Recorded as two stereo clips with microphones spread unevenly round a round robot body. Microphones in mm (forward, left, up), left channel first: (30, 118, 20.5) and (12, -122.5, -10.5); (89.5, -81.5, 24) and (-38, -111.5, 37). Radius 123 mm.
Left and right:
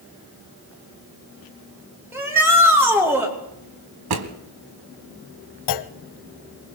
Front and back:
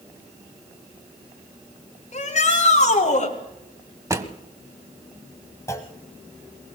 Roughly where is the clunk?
Left.